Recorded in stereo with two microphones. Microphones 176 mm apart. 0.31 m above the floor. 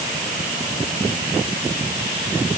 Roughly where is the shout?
No shout in this recording.